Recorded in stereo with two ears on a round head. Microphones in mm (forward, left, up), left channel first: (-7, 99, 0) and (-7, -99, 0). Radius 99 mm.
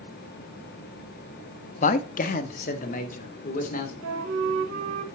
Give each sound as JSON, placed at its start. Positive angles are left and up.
{"t": 1.8, "sound": "a man speaking", "side_deg": 35, "distance_m": 0.7}
{"t": 4.0, "sound": "a flute", "side_deg": -70, "distance_m": 1.4}